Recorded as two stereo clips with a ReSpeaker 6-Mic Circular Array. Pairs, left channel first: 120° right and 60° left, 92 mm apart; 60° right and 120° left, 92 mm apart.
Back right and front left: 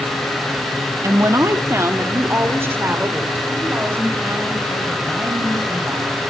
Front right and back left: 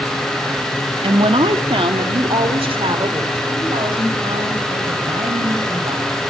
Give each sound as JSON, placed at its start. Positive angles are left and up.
{"t": 1.0, "sound": "a woman speaking", "azimuth_deg": 115, "distance_m": 1.2}